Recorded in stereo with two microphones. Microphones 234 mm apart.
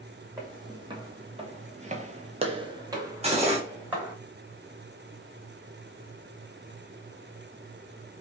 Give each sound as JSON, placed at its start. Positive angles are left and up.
{"t": 0.4, "sound": "footsteps", "side_deg": -15, "distance_m": 1.2}
{"t": 3.2, "sound": "cutlery clinking", "side_deg": -25, "distance_m": 0.8}